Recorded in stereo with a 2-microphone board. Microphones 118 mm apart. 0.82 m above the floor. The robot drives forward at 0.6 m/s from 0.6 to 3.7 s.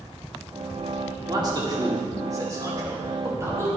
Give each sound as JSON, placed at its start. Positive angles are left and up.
{"t": 1.3, "sound": "a man speaking", "side_deg": -35, "distance_m": 2.0}